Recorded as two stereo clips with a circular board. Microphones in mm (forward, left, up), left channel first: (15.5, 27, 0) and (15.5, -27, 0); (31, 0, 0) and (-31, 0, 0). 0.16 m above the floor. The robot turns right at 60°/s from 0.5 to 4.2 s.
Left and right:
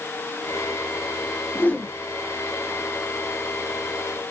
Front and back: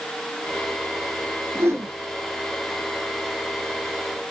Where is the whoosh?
135° left, 0.8 m; by 1.9 s 155° left, 0.8 m.